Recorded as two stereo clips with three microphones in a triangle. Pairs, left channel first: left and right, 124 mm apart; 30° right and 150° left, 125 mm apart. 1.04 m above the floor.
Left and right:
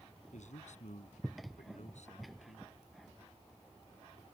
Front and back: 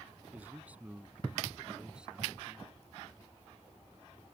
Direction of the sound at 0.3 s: 75° left.